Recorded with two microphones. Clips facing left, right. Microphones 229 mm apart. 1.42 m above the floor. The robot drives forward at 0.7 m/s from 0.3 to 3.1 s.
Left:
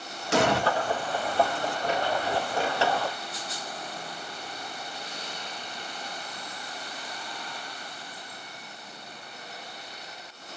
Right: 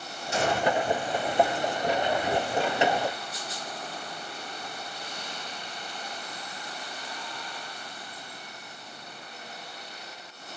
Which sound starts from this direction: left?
An explosion, at 0.3 s.